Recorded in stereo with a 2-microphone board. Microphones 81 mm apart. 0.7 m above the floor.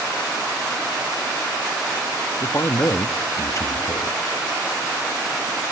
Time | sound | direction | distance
2.4 | a man speaking | 40° left (ahead or behind) | 0.7 m